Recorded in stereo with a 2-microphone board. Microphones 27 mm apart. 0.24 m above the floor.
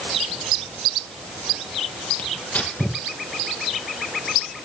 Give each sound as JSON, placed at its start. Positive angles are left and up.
{"t": 2.2, "sound": "tearing paper", "side_deg": 70, "distance_m": 5.0}